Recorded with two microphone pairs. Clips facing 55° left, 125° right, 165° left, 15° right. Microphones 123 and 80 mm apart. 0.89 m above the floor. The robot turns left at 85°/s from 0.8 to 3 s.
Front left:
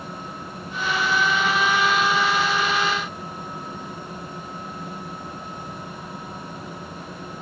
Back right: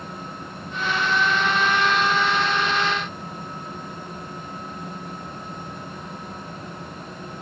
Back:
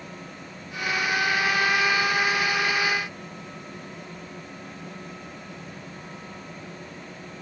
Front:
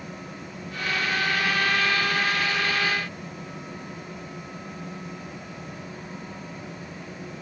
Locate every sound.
Only background noise.